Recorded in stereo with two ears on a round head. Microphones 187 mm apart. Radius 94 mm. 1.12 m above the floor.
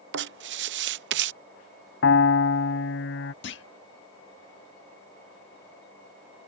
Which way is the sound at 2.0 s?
65° left (ahead or behind).